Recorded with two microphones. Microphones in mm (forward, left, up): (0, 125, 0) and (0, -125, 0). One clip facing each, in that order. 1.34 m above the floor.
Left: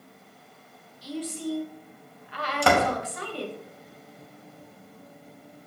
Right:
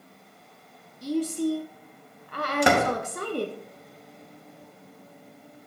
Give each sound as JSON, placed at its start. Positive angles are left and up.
{"t": 1.0, "sound": "a woman speaking", "side_deg": -50, "distance_m": 0.8}
{"t": 2.6, "sound": "a door slam", "side_deg": -20, "distance_m": 0.9}